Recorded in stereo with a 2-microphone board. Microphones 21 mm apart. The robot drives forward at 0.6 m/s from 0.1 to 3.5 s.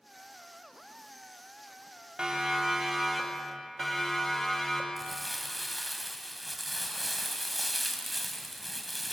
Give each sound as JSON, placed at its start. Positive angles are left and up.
{"t": 2.2, "sound": "a siren", "side_deg": -40, "distance_m": 3.0}
{"t": 5.0, "sound": "crumpling", "side_deg": 5, "distance_m": 2.0}